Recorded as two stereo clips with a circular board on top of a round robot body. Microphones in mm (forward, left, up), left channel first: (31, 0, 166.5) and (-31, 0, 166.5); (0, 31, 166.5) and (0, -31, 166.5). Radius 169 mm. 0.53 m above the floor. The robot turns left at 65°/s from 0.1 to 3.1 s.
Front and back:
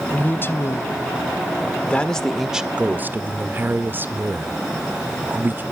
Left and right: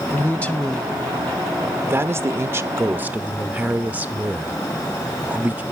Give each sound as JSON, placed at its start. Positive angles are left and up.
{"t": 0.1, "sound": "a man speaking", "azimuth_deg": 55, "distance_m": 0.8}